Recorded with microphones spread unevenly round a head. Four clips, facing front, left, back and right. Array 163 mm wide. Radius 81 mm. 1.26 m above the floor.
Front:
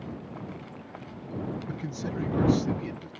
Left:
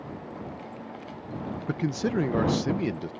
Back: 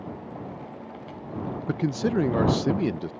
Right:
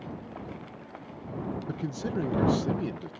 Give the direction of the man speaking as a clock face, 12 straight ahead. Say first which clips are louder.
Left 10 dB, back 9 dB; 7 o'clock.